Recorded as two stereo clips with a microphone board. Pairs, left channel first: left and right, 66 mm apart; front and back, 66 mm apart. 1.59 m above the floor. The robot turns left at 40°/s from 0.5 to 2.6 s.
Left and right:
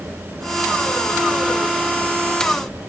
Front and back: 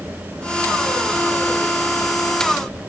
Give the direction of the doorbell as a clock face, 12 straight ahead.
No doorbell in this recording.